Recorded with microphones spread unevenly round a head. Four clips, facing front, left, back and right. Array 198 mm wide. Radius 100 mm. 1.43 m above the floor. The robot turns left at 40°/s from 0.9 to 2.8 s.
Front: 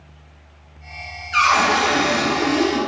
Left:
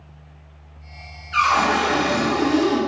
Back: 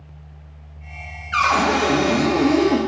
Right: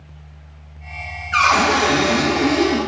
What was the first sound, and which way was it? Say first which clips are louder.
A cupboard door: right 2 dB, front 1 dB; 115° right.